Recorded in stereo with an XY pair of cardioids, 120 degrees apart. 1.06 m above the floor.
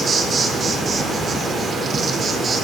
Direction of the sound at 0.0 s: 40° right.